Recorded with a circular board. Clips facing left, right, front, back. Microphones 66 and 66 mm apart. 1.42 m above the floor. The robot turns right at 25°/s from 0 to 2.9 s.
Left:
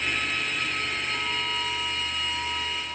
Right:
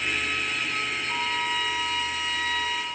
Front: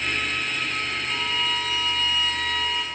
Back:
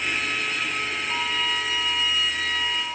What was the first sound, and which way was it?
A violin, 125° right.